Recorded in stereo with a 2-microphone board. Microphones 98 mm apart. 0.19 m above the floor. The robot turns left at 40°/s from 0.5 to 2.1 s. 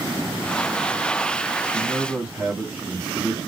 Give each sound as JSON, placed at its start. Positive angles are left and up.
{"t": 1.6, "sound": "a man speaking", "side_deg": 0, "distance_m": 1.2}